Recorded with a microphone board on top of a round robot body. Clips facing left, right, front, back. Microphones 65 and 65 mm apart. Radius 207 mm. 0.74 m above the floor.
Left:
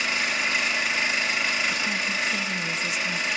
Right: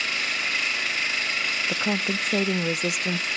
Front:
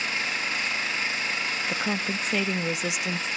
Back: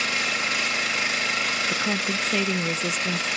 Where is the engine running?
160° left, 2.5 m.